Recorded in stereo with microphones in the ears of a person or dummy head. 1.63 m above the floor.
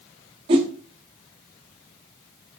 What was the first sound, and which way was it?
A whoosh, 25° right (ahead or behind).